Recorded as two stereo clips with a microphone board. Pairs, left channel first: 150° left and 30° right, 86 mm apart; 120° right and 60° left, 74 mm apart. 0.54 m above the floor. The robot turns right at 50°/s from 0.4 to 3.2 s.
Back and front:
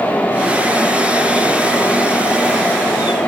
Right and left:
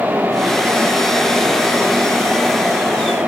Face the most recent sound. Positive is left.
No sound to turn to.